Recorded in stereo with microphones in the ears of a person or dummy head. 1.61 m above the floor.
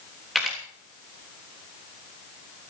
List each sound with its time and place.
0.3 s a camera shutter: 5° left (ahead or behind), 3 m